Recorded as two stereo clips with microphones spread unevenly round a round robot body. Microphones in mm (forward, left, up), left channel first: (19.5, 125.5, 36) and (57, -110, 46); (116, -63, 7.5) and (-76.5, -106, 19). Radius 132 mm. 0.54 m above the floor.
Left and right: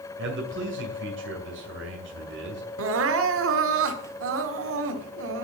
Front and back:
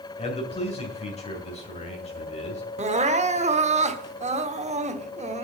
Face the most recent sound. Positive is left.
turn(degrees=-110)